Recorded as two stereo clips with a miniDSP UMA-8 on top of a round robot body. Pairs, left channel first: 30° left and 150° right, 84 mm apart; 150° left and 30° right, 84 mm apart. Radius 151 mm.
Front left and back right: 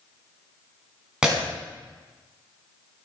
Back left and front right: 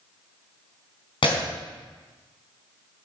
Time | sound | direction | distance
1.2 | breaking glass | 130° left | 3.5 m